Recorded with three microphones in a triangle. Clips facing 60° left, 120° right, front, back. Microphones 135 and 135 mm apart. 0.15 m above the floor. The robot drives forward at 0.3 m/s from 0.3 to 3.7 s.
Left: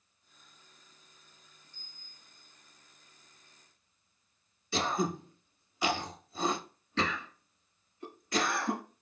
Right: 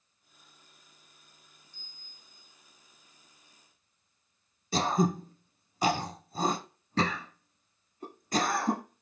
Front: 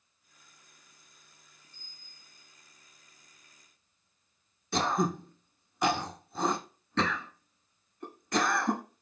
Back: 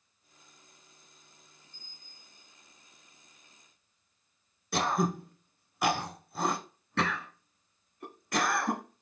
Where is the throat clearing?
100° right, 0.7 m.